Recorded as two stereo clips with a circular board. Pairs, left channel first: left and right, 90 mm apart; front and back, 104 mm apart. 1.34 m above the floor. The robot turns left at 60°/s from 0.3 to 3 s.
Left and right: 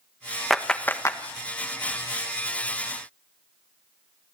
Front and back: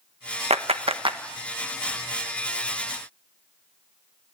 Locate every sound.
0.5 s a clap: straight behind, 1.2 m; by 1.2 s 140° left, 1.2 m